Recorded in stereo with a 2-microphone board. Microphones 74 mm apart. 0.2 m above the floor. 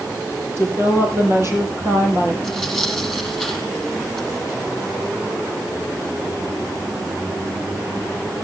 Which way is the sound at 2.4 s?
Centre (ahead or behind).